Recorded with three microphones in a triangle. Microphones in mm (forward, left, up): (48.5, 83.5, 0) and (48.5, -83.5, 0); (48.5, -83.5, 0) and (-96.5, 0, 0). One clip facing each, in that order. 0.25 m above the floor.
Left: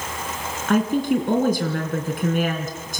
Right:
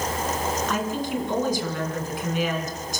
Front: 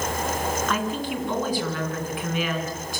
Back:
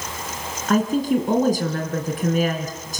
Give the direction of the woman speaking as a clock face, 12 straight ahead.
8 o'clock.